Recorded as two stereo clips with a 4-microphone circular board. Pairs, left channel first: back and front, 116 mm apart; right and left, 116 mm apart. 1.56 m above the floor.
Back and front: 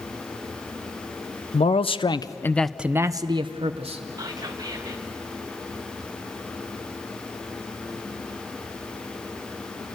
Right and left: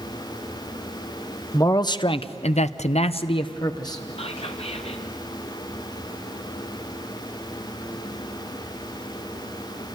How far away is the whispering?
About 0.7 m.